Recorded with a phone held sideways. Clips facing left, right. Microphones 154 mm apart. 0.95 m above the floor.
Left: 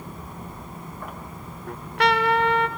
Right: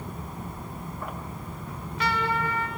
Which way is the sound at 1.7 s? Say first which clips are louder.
Left 8 dB; 70° left (ahead or behind).